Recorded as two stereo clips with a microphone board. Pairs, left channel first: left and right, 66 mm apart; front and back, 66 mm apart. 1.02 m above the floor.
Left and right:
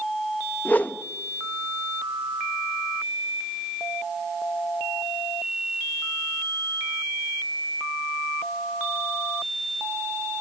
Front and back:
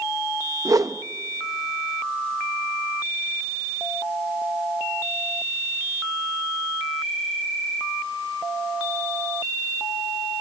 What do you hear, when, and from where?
0.7 s a whoosh: 150° left, 1.0 m